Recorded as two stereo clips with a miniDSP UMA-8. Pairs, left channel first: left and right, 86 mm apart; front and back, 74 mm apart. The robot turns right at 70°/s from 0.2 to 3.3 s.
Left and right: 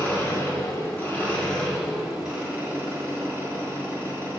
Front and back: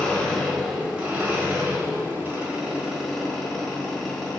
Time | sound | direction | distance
0.0 | an engine running | 65° left | 1.2 m